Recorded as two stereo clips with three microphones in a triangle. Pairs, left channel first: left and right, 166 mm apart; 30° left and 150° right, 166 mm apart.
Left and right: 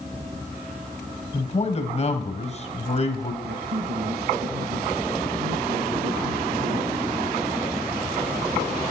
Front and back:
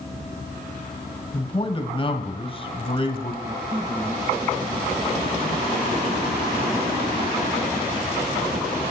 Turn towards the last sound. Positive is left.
turn(degrees=-80)